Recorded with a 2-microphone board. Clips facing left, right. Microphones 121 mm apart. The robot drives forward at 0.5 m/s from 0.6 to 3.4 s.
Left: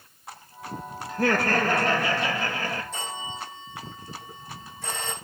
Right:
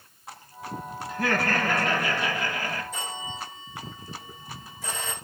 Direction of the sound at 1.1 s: 40° left (ahead or behind).